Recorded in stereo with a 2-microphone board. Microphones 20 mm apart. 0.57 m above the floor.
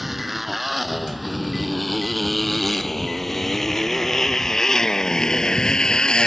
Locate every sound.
0.0 s a motorcycle: 10° right (ahead or behind); by 6.3 s 45° left (ahead or behind)